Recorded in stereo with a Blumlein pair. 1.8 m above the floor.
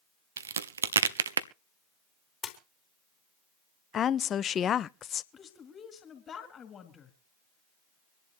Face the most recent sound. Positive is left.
turn(degrees=20)